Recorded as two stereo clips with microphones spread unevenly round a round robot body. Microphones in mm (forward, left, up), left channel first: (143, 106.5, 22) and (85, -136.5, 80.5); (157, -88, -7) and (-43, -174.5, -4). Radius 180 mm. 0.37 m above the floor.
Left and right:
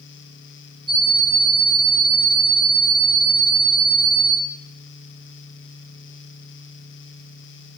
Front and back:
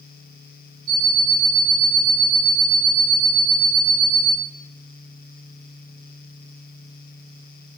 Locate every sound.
0.9 s an alarm clock: 165° right, 0.9 m